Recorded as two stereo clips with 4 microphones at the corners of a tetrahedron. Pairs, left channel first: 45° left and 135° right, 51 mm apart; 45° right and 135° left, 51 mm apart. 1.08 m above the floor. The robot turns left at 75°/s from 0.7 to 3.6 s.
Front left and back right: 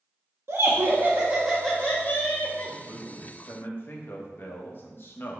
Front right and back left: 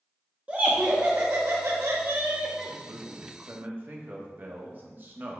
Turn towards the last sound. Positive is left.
turn(degrees=90)